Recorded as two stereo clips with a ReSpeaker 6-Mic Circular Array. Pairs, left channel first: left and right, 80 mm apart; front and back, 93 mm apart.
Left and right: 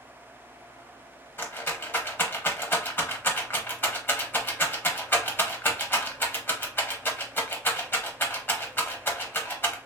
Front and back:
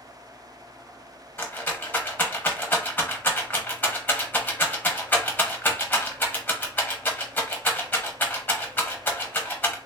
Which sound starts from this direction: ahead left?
A rattle, at 1.4 s.